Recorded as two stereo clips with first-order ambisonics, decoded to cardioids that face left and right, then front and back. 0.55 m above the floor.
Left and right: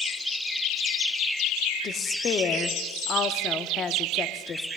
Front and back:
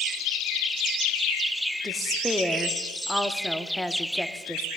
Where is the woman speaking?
90° left, 0.7 m.